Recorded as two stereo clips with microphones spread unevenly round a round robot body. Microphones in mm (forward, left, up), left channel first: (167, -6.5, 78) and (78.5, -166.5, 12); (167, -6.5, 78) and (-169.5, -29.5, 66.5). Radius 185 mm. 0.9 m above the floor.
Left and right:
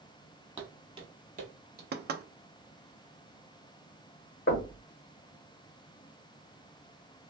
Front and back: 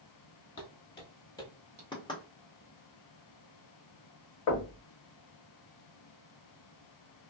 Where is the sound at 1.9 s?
75° right, 0.7 m.